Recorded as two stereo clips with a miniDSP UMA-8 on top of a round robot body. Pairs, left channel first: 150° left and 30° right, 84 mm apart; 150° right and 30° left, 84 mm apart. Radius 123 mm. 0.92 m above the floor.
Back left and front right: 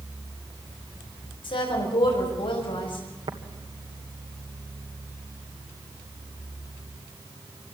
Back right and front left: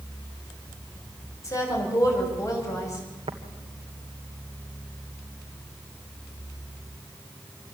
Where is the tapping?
Straight ahead, 1.7 m.